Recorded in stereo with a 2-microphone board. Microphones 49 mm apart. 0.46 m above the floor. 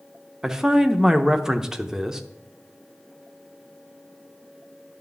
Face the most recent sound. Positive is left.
turn(degrees=-10)  # may be behind; listen again after turning